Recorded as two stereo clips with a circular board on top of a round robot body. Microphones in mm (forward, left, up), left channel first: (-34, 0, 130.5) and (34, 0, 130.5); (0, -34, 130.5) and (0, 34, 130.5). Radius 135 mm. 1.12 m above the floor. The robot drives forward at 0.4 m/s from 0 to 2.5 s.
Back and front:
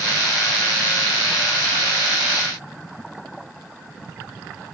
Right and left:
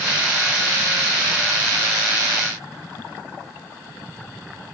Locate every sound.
Only background noise.